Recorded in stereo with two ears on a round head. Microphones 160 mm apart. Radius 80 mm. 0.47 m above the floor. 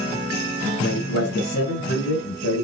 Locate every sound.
0.8 s a man speaking: 75° left (ahead or behind), 9.5 m; by 2.6 s 70° left (ahead or behind), 7 m